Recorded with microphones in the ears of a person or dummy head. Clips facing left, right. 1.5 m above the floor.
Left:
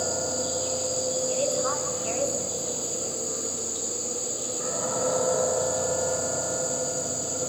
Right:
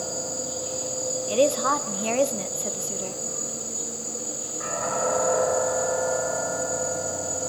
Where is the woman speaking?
80° right, 1.2 m.